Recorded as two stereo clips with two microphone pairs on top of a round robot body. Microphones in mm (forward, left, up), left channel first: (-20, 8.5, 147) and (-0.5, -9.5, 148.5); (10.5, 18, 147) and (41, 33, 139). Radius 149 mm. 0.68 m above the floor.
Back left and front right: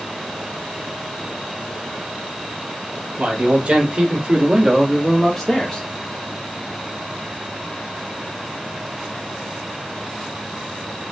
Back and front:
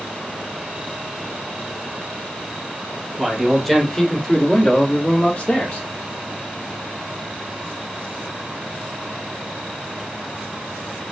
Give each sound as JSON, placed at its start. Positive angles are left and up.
{"t": 3.2, "sound": "a man speaking", "azimuth_deg": -50, "distance_m": 1.6}